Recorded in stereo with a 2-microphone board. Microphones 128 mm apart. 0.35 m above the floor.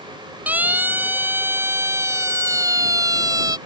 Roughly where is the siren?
Centre.